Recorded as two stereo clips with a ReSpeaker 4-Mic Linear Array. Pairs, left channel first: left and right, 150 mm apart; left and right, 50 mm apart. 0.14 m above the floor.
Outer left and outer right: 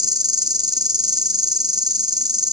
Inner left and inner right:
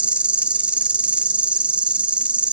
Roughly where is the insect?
Right.